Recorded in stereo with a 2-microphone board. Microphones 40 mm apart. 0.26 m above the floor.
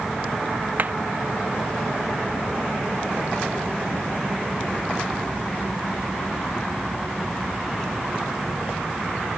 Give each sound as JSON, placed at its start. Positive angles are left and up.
{"t": 0.8, "sound": "hammering", "side_deg": -40}